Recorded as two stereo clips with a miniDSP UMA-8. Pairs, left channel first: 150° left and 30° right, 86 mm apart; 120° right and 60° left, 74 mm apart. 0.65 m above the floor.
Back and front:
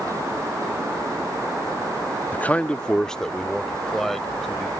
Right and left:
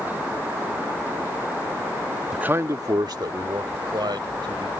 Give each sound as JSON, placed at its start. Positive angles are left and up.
{"t": 2.3, "sound": "a man speaking", "azimuth_deg": 130}